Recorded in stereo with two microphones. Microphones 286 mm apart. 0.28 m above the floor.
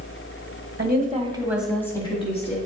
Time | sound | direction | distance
0.8 | a woman speaking | 40° right (ahead or behind) | 1.4 m